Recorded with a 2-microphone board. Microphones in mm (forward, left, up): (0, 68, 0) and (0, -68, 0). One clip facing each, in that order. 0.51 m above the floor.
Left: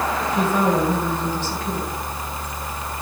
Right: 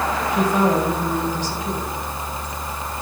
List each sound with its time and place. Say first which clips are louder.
0.3 s a woman speaking: right 1 dB; 15° right (ahead or behind), 3 m